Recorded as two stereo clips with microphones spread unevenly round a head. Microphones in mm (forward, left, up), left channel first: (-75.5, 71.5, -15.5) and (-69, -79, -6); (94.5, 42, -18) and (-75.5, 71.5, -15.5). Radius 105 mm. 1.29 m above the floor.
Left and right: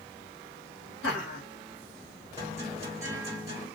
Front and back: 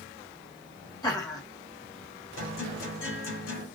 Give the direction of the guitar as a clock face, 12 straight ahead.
12 o'clock.